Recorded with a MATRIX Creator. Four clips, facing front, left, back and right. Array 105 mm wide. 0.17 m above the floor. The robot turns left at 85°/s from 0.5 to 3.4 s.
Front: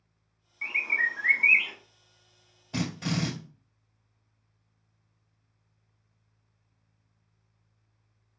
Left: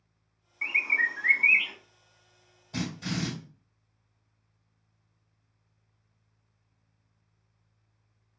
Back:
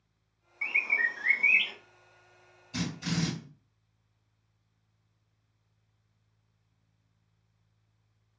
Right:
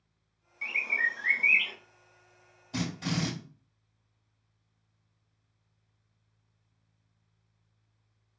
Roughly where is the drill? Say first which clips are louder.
Right 1 dB, front 3 dB; ahead.